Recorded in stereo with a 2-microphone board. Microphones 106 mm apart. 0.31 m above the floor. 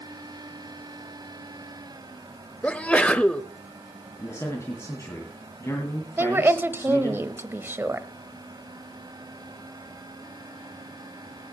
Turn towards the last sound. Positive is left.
turn(degrees=-20)  # may be behind; listen again after turning